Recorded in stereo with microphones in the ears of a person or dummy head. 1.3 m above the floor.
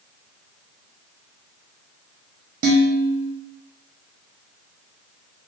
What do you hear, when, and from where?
2.6 s dishes clattering: 45° right (ahead or behind), 0.9 m